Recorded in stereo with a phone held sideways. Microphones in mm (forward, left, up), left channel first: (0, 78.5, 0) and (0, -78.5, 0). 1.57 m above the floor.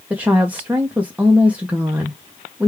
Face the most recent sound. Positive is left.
turn(degrees=-10)  # may be behind; listen again after turning